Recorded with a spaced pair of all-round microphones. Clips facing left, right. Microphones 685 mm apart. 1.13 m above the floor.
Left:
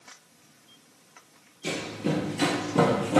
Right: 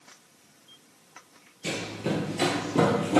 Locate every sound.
1.6 s running footsteps: 30° right (ahead or behind), 1.6 m; by 3.2 s 20° left (ahead or behind), 1.8 m